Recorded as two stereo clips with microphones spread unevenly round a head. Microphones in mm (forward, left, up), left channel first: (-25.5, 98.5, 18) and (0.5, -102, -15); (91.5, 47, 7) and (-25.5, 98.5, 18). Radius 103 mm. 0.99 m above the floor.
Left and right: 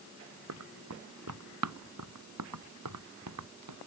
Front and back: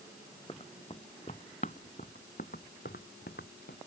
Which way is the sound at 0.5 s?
95° right.